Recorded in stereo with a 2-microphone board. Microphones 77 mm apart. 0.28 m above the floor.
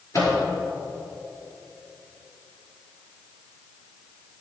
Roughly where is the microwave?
Left.